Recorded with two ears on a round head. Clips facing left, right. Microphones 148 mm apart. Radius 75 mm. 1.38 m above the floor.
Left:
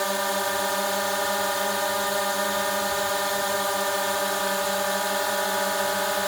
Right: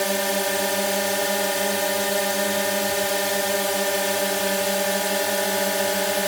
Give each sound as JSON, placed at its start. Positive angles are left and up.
{"t": 0.0, "sound": "a drone", "side_deg": -30}